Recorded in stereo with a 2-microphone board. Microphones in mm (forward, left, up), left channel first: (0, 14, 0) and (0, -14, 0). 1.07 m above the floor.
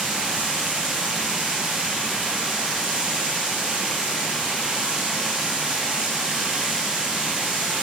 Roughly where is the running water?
Right.